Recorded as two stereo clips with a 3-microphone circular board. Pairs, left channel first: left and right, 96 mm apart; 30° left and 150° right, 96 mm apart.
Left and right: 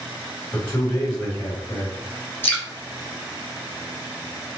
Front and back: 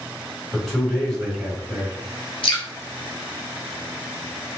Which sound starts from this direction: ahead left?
Dripping, at 2.4 s.